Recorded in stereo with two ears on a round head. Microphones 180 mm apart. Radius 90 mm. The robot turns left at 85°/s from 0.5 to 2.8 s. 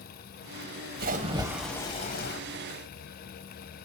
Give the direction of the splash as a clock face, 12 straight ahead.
4 o'clock.